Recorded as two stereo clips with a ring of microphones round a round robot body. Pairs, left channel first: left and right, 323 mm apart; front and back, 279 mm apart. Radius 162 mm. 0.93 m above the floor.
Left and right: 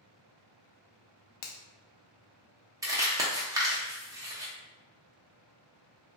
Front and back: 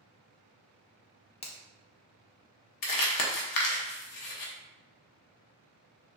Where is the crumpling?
10° right, 0.7 m.